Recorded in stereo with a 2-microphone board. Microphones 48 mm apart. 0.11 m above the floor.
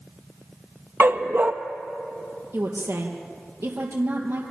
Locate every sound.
1.0 s a dog barking: 45° right (ahead or behind), 1.5 m
2.5 s a woman speaking: 60° right (ahead or behind), 3 m